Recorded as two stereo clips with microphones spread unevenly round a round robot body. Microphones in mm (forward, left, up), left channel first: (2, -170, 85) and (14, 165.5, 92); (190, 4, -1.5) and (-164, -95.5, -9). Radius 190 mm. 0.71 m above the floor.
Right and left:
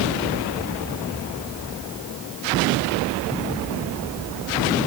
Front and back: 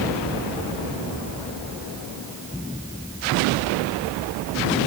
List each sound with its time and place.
Only background noise.